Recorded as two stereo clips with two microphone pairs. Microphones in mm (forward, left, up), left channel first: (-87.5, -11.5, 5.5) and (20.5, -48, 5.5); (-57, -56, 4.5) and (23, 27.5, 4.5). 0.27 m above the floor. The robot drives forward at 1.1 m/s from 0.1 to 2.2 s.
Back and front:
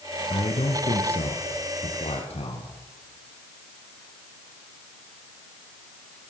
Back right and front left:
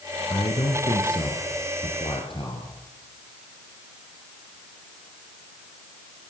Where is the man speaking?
175° right, 3 m.